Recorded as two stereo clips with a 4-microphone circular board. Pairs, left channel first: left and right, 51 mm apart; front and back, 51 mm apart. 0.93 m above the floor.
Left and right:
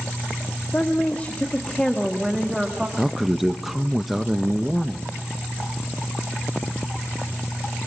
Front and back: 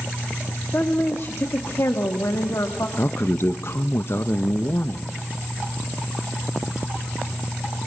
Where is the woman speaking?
40° left, 1.7 m; by 2.9 s 15° right, 1.4 m.